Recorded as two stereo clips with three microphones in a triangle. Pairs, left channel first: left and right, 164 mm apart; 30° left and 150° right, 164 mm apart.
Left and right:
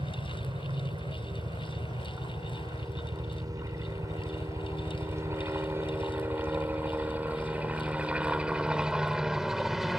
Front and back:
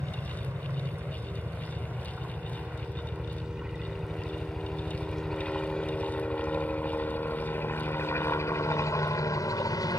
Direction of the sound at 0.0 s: 95° right.